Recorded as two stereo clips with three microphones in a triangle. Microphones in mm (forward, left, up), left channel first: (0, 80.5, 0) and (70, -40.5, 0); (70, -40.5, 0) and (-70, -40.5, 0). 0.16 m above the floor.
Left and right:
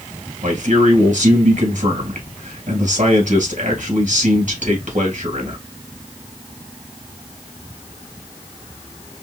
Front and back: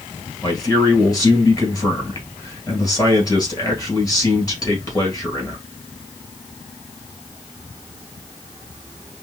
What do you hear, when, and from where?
0.4 s a man speaking: 60° right, 2.5 m